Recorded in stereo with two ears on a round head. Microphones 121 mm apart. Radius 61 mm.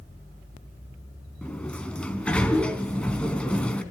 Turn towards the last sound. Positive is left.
turn(degrees=5)  # may be behind; listen again after turning